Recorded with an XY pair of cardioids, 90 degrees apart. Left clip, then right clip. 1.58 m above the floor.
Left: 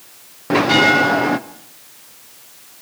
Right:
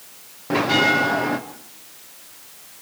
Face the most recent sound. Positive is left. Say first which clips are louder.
# left 5 dB
turn(degrees=40)